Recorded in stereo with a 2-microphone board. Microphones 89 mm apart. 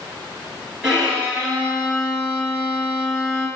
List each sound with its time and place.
0.8 s a violin: 5° right (ahead or behind), 1.8 m